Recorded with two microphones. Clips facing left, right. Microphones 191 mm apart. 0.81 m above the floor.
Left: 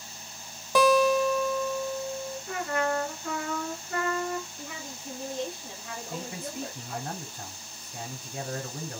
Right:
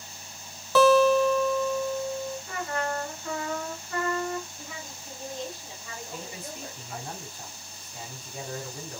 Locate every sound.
0.8 s a guitar: 15° left (ahead or behind), 1.1 m
2.5 s a trumpet: 40° left (ahead or behind), 3.5 m
4.6 s a woman speaking: 55° left (ahead or behind), 4 m
6.1 s a man speaking: 55° left (ahead or behind), 4.5 m